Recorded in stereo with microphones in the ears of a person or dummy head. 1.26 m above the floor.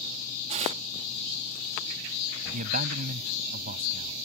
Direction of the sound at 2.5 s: 50° right (ahead or behind).